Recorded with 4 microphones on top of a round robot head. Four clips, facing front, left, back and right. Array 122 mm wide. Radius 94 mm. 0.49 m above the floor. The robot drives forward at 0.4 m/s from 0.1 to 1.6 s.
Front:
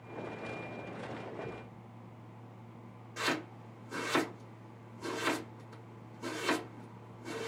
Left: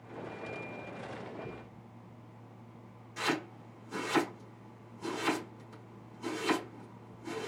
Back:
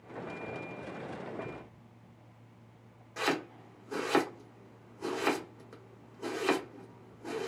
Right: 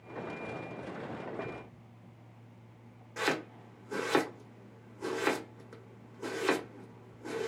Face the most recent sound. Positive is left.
turn(degrees=-130)